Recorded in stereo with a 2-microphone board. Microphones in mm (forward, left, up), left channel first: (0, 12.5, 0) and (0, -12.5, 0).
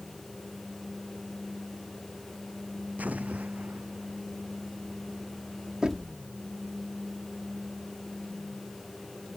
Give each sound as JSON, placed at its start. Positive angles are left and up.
{"t": 3.0, "sound": "an explosion", "side_deg": -75}
{"t": 5.8, "sound": "knocking", "side_deg": -30}